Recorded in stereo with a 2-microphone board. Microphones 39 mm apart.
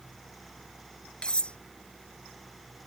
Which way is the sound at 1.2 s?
25° left (ahead or behind).